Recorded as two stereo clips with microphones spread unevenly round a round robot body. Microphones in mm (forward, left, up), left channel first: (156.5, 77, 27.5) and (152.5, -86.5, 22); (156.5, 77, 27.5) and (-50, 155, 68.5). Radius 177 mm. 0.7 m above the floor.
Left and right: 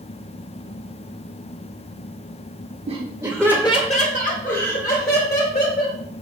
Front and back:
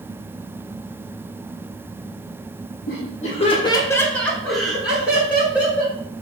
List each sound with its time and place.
2.9 s laughter: 55° right, 0.9 m; by 6.0 s 75° left, 3 m